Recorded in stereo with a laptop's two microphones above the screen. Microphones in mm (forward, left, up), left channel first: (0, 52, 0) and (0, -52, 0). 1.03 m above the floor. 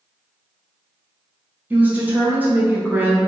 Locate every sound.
1.7 s a woman speaking: 15° right (ahead or behind), 0.7 m